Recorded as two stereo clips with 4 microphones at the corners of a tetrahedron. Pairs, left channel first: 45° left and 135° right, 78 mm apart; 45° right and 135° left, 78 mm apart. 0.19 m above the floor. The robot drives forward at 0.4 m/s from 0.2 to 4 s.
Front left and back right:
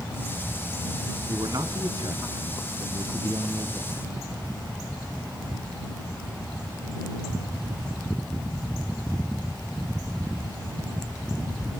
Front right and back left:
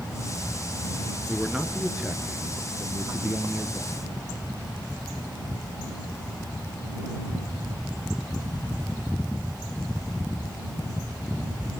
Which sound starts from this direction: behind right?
A man speaking, at 1.3 s.